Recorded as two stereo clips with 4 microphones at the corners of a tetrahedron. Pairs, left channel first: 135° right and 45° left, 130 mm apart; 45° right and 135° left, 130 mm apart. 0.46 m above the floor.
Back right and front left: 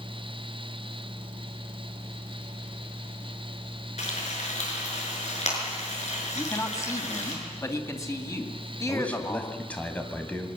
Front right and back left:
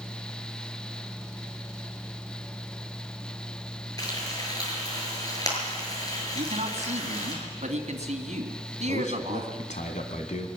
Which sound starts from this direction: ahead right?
A man speaking, at 8.9 s.